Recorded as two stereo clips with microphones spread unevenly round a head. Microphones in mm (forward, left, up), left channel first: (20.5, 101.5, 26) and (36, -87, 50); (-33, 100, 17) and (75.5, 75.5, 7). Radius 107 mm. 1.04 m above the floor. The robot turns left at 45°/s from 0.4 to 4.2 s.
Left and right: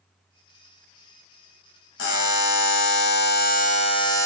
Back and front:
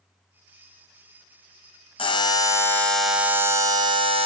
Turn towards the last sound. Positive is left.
turn(degrees=25)